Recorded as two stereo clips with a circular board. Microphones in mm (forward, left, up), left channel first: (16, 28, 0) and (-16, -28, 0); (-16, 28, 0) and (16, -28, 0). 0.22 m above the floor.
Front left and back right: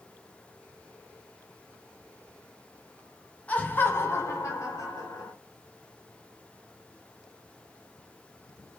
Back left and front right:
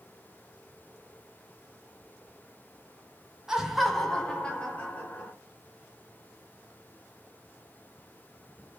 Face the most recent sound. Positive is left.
turn(degrees=60)